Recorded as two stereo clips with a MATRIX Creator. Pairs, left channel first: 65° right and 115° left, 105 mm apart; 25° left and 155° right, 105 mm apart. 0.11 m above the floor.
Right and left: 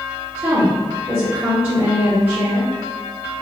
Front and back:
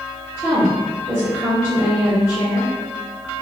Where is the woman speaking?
160° left, 1.9 m.